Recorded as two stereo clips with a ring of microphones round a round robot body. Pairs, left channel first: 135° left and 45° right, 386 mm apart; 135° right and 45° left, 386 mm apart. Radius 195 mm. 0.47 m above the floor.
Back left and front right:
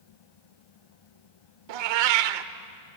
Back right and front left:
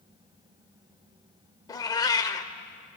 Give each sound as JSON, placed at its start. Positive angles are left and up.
{"t": 1.7, "sound": "a cat meowing", "azimuth_deg": -55, "distance_m": 0.9}